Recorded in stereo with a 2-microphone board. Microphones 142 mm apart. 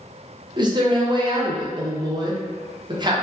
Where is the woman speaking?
30° right (ahead or behind), 0.6 m.